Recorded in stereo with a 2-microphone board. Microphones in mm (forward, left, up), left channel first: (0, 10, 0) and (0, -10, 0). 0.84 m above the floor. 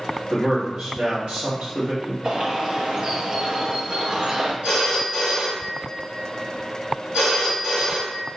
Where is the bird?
45° right (ahead or behind), 0.5 m.